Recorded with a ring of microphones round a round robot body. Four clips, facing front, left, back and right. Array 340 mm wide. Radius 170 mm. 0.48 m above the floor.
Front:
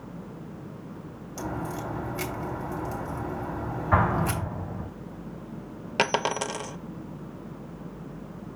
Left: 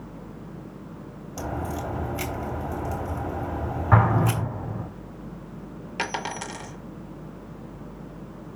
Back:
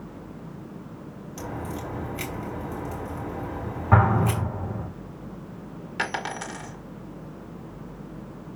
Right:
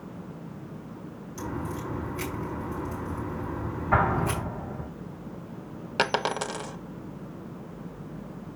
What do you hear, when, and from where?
1.4 s a crack: 80° left, 3 m
3.9 s an explosion: 140° left, 4.5 m
6.0 s a dropped coin: 35° right, 0.6 m